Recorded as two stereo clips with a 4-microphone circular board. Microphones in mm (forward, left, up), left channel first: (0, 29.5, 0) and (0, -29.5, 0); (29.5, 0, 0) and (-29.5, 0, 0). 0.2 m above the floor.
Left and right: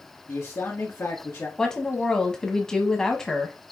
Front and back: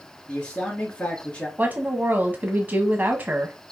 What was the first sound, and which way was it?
A man speaking, 55° left.